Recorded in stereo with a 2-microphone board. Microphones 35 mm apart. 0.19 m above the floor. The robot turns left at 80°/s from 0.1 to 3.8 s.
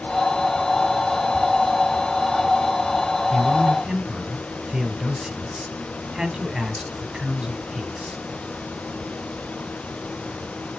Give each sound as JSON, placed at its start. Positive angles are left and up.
{"t": 3.3, "sound": "a man speaking", "side_deg": -10, "distance_m": 1.0}